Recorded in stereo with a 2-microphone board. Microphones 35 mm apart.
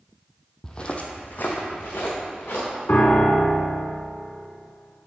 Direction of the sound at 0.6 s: 20° left (ahead or behind).